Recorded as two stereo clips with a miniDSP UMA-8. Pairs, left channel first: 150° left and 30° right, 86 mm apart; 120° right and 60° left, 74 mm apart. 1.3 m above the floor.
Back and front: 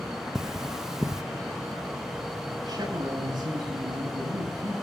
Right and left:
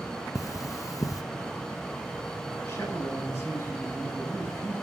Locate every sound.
0.3 s cutlery clinking: 110° right, 0.6 m
2.7 s a man speaking: 60° right, 7 m